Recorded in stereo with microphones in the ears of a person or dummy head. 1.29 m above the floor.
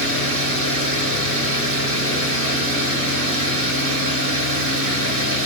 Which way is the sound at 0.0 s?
75° right (ahead or behind).